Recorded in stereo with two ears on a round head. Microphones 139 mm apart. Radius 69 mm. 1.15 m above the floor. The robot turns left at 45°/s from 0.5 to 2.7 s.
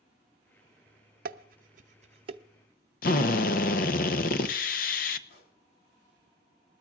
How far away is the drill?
About 0.8 m.